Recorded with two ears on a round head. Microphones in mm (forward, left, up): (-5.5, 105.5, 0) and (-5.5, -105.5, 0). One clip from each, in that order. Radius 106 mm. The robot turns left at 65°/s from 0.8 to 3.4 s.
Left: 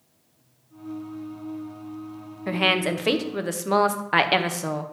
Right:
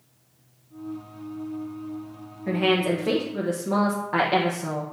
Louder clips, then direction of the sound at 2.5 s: Left 1 dB; 135° left.